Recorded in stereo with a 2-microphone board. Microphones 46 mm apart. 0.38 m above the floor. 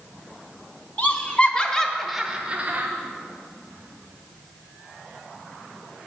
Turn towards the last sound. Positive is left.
turn(degrees=-40)  # may be behind; listen again after turning